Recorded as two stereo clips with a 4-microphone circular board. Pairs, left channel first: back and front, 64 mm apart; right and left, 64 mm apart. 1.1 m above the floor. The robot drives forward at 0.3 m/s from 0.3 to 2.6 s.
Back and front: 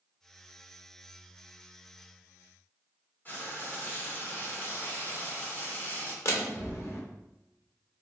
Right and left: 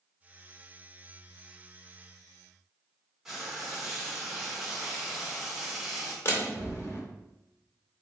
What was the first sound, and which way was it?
Frying, 165° left.